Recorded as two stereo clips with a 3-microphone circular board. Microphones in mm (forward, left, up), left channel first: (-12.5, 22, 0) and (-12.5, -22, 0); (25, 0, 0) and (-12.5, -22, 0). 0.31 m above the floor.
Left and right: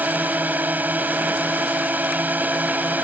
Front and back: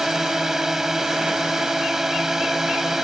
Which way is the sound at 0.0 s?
75° right.